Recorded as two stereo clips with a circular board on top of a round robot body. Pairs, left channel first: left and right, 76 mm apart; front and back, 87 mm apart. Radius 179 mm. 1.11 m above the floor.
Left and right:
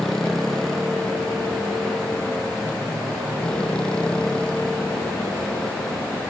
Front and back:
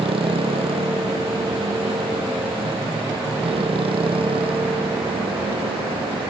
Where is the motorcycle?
175° left; by 6.3 s 165° left.